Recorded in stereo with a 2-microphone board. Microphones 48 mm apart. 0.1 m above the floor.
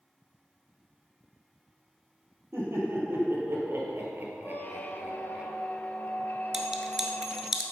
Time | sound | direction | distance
2.5 | laughter | 65° right (ahead or behind) | 3.5 m
4.4 | a squeak | 40° left (ahead or behind) | 0.8 m
6.5 | a clink | 10° right (ahead or behind) | 1.0 m